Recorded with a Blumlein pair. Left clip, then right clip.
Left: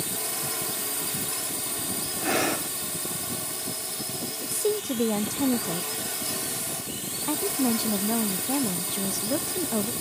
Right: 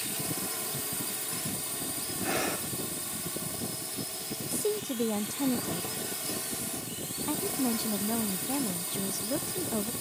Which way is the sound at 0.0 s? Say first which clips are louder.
Left 4 dB; 15° left.